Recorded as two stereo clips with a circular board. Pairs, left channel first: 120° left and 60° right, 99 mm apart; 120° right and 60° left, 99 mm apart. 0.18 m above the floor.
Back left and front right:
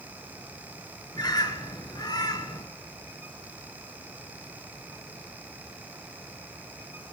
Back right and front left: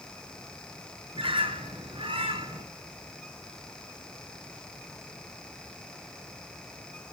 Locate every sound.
1.1 s a bird: 75° left, 1.2 m